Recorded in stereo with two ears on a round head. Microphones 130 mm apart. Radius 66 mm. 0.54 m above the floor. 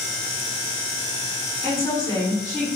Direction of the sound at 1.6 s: 25° left (ahead or behind).